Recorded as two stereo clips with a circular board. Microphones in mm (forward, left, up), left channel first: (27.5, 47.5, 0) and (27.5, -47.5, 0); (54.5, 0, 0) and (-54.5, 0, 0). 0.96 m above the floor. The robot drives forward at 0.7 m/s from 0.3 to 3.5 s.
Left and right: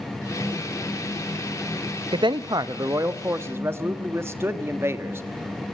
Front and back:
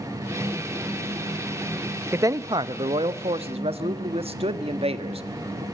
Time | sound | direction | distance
2.1 | a man speaking | 115° right | 0.7 m